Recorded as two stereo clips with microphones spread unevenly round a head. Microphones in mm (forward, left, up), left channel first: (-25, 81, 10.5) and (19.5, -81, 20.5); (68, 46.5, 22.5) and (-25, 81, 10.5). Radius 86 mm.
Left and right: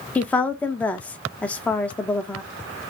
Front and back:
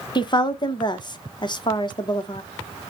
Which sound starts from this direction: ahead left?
A woman speaking, at 0.1 s.